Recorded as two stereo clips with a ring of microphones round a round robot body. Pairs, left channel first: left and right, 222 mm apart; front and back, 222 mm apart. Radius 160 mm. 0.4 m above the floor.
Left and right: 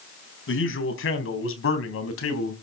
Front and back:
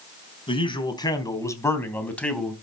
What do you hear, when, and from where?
0.5 s a man speaking: 65° left, 4 m; by 2.5 s 90° left, 3.5 m